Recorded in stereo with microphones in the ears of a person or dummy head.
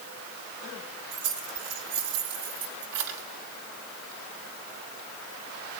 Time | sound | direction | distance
1.1 | keys jangling | 75° right (ahead or behind) | 2.5 m